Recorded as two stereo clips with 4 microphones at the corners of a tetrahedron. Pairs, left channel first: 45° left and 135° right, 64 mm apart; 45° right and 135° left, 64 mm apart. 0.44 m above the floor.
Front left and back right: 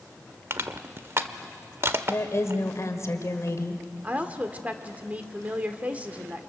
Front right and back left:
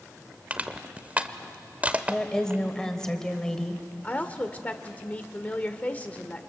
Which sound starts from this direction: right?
A woman speaking, at 4.0 s.